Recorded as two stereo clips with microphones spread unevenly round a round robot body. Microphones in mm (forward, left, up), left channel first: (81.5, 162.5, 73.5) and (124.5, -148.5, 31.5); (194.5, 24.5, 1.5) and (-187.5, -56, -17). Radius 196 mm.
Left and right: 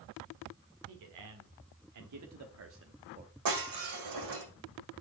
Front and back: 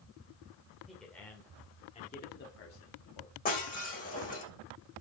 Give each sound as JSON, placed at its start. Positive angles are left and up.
{"t": 0.9, "sound": "a man speaking", "azimuth_deg": -80, "distance_m": 2.0}
{"t": 3.5, "sound": "breaking glass", "azimuth_deg": -60, "distance_m": 7.0}